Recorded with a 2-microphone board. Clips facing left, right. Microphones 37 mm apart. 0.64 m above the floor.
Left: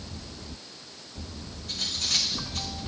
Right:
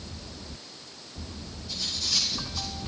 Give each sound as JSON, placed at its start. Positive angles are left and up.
{"t": 1.7, "sound": "cutlery clinking", "side_deg": 55, "distance_m": 4.5}